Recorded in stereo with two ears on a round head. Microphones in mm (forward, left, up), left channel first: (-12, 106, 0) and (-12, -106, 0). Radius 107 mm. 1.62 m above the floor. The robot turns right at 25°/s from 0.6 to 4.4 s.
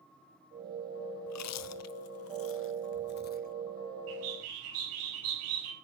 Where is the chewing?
75° left (ahead or behind), 0.5 m; by 3.5 s 35° left (ahead or behind), 0.5 m.